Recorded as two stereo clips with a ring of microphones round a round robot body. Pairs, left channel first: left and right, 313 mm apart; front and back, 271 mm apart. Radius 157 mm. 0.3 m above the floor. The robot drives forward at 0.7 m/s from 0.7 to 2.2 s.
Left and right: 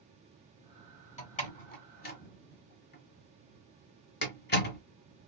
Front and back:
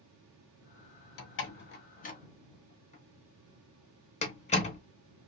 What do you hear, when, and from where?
1.2 s a door slam: 25° left, 1.5 m; by 4.8 s 50° left, 1.1 m